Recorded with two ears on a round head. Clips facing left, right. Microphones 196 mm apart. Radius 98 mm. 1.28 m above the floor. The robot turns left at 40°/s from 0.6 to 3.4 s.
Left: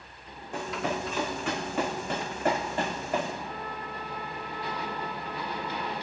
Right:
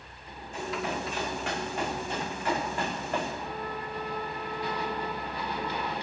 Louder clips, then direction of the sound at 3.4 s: Right 2 dB; 15° left (ahead or behind).